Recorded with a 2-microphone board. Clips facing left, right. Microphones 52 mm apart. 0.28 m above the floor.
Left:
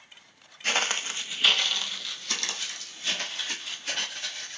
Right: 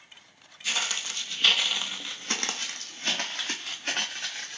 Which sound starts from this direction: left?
Footsteps, at 0.6 s.